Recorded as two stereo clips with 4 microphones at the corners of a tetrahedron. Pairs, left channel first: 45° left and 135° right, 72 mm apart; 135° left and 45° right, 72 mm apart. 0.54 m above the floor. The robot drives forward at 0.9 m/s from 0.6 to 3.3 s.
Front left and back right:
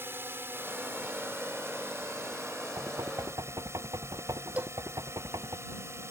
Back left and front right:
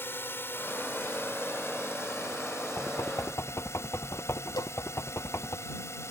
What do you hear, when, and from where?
0.0 s a drone: straight behind
2.8 s knocking: 175° right
4.6 s a cowbell: 155° left